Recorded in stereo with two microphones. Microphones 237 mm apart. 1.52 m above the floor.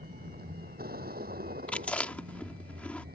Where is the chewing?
5° left (ahead or behind).